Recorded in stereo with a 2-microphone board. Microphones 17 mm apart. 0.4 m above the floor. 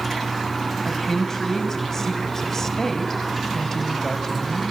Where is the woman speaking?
25° left (ahead or behind), 2.5 m.